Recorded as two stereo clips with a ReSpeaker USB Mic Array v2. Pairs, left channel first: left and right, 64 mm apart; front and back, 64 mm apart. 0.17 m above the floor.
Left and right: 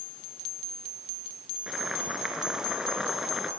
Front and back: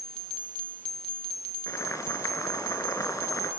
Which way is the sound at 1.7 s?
10° right.